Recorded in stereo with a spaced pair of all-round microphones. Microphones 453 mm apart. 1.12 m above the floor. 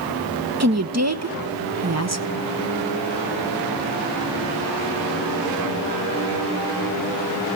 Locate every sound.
0.6 s a woman speaking: 35° right (ahead or behind), 1.1 m